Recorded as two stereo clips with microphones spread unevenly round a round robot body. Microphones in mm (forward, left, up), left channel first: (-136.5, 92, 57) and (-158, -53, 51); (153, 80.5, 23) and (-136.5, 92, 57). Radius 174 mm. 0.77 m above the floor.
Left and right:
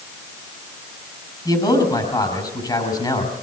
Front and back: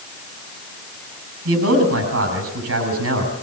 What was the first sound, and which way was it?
A man speaking, 140° left.